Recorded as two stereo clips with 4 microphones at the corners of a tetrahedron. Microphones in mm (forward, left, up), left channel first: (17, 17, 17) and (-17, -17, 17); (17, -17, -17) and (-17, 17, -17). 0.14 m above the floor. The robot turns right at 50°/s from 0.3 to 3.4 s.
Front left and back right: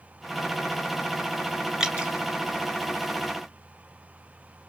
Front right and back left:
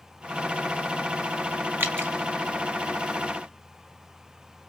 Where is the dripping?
150° left, 2.5 m; by 2.1 s 165° left, 2.5 m.